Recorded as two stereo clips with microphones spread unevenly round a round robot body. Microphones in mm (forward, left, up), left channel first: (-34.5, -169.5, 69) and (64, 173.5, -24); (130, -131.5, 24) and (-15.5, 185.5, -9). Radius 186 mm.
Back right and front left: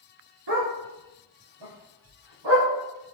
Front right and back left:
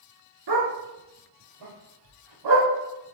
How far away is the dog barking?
About 2.5 m.